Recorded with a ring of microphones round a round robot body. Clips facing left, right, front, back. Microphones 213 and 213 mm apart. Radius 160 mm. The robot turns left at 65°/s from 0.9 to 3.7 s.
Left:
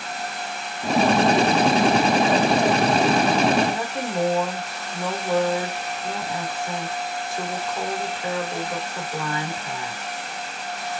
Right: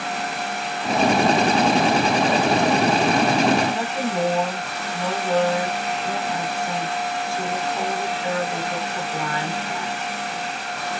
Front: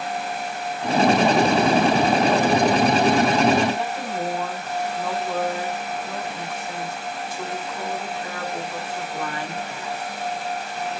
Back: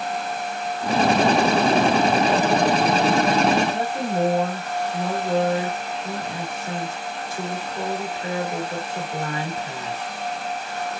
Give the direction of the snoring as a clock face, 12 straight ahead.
No snoring in this recording.